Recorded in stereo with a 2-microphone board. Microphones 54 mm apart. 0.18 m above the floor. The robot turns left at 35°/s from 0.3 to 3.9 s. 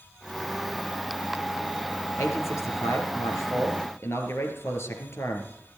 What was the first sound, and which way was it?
A man speaking, 120° left.